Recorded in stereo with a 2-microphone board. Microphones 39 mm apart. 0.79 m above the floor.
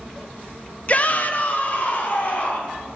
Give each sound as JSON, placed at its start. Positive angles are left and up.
{"t": 0.9, "sound": "a shout", "side_deg": 35, "distance_m": 0.5}